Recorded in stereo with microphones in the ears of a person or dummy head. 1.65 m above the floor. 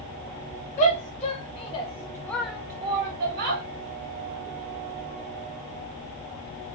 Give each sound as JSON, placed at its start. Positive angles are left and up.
{"t": 0.8, "sound": "a shout", "side_deg": 45, "distance_m": 2.0}